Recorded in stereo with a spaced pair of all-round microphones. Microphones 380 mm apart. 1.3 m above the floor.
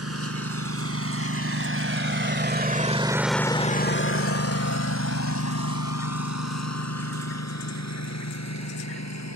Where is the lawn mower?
40° right (ahead or behind); by 9.4 s 45° left (ahead or behind).